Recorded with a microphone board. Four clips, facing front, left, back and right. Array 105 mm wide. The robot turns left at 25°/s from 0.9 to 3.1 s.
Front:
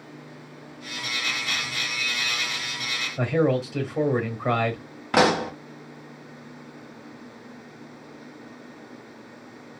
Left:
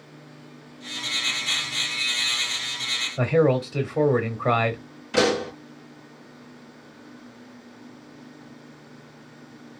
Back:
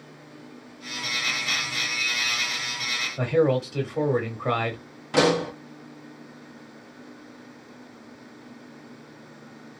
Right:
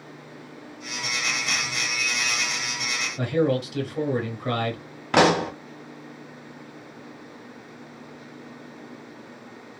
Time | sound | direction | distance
3.2 | a man speaking | 85° left | 1.2 m
5.1 | a pop | 55° right | 1.1 m